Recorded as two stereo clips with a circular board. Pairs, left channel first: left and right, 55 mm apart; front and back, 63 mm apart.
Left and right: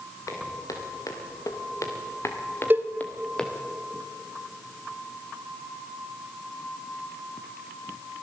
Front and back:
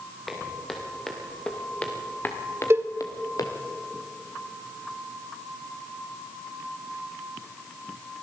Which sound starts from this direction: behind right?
A cowbell, at 2.7 s.